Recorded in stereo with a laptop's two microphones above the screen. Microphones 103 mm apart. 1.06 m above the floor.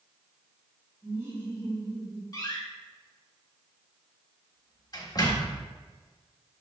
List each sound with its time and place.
1.0 s laughter: 30° right (ahead or behind), 3 m
2.3 s a door slam: 40° left (ahead or behind), 1.6 m